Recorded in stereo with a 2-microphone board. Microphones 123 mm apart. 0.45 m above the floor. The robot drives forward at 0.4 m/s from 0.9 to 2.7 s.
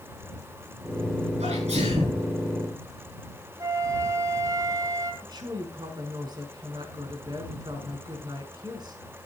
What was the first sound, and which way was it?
A sneeze, 65° right (ahead or behind).